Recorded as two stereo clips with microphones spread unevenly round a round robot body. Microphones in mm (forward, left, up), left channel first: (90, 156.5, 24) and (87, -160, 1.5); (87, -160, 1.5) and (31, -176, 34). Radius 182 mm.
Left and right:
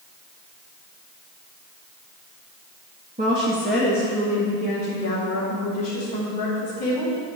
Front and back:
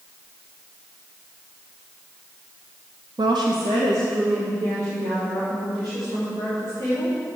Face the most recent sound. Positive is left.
turn(degrees=150)